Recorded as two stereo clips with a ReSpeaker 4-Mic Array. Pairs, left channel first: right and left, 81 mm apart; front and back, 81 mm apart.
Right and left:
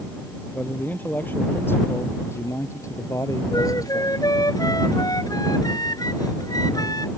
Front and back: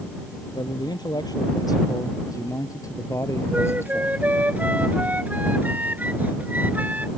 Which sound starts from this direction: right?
A flute, at 3.5 s.